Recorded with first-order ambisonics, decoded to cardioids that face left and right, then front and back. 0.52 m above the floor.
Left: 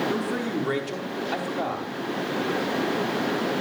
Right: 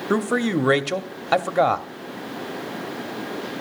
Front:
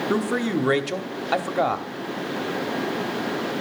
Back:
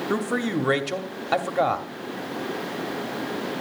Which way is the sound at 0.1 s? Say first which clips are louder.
Right 5 dB, even; 85° right.